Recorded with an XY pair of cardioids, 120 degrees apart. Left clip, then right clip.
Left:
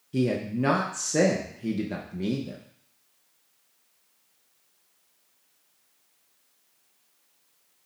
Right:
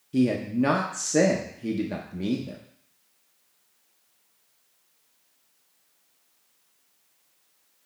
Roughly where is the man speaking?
Ahead.